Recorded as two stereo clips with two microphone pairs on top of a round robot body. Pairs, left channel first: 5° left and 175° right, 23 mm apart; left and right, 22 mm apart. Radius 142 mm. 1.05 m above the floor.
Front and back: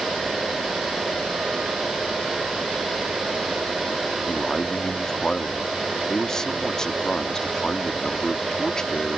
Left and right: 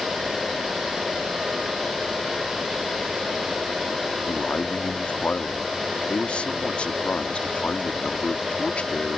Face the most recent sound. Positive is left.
turn(degrees=65)